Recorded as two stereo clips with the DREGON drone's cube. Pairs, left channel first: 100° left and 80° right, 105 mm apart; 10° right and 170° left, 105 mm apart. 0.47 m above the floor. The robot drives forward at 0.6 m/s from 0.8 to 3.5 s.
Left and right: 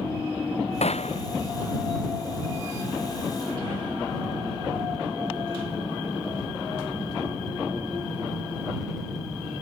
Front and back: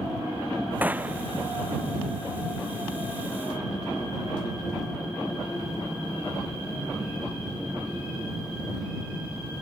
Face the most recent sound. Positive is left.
turn(degrees=105)